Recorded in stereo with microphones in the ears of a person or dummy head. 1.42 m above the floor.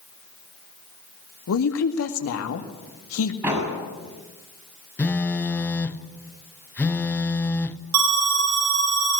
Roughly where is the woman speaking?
Left.